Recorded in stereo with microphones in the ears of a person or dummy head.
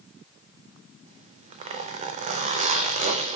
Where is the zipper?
40° right (ahead or behind), 0.5 m.